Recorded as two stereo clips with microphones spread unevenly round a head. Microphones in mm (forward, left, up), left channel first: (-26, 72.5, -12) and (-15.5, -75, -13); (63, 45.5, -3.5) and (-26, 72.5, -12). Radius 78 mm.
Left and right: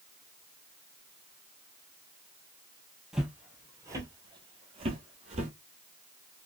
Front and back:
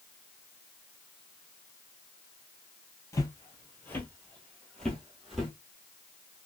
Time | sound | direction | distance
3.1 | footsteps | straight ahead | 1.3 m